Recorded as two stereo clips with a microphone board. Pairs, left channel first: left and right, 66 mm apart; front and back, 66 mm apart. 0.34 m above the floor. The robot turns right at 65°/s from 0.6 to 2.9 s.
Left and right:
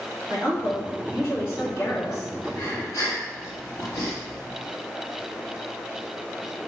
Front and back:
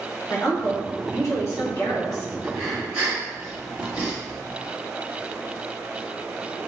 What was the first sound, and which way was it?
A woman speaking, 40° right.